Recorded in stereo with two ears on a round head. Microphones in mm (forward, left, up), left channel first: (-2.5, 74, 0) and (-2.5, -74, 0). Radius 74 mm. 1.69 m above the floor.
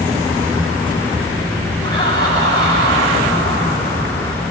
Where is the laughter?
30° left (ahead or behind), 9.5 m; by 4.4 s 20° left (ahead or behind), 10 m.